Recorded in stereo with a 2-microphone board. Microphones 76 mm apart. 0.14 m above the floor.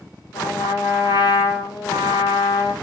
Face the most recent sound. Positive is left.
turn(degrees=70)  # may be behind; listen again after turning